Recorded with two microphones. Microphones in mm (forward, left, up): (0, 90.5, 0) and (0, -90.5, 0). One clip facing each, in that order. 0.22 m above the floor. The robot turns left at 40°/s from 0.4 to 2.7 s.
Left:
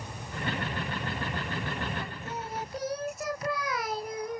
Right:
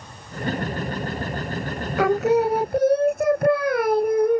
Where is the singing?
80° right; by 4.4 s 55° right (ahead or behind).